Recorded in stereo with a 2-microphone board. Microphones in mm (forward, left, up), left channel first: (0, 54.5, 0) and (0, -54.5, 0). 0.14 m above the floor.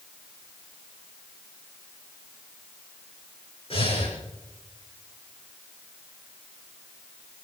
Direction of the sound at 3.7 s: 60° left (ahead or behind).